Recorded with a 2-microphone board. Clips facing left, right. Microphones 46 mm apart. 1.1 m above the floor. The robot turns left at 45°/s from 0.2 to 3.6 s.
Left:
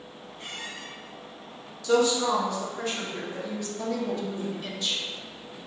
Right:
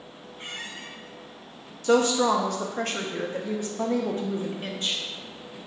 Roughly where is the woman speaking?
Ahead right.